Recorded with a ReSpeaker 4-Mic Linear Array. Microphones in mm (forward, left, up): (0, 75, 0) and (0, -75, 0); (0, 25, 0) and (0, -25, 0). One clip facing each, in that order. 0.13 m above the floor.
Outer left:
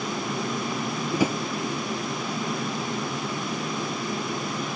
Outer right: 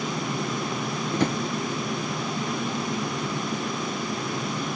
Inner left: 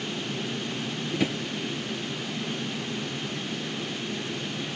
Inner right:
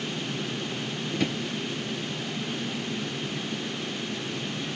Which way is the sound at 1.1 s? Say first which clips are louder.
Outer left 1 dB, inner left 1 dB; 10° left (ahead or behind).